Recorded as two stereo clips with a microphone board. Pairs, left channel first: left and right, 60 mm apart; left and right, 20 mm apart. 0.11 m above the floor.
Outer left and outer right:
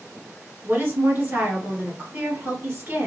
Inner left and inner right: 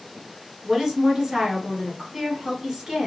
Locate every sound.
0.6 s a woman speaking: 35° right (ahead or behind), 1.6 m